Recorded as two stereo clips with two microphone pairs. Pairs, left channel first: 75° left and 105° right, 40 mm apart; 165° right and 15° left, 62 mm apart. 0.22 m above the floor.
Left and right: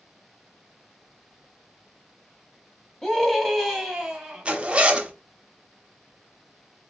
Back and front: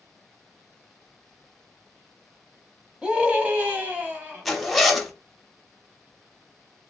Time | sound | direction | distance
3.0 | a scream | 15° left | 1.3 m
4.5 | a zipper | 75° right | 0.8 m